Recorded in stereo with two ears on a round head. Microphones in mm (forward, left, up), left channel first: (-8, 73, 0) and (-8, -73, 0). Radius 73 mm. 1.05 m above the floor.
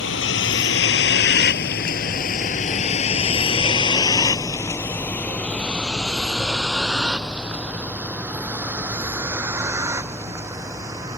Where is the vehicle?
85° left; by 11.2 s 20° right (ahead or behind).